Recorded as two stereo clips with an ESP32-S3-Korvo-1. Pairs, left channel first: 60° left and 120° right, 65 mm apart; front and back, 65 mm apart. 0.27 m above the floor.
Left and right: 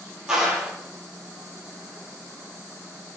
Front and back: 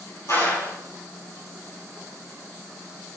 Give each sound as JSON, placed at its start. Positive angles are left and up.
{"t": 0.3, "sound": "a clap", "azimuth_deg": -40, "distance_m": 6.5}